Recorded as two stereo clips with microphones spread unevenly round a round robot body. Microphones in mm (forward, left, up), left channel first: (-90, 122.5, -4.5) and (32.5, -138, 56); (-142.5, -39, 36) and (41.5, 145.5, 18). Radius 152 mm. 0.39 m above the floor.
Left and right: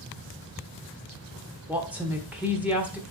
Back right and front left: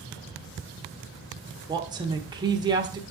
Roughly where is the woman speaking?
Ahead left.